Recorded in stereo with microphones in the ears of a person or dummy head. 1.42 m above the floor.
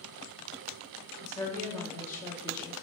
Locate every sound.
1.2 s a woman speaking: 10° left (ahead or behind), 3 m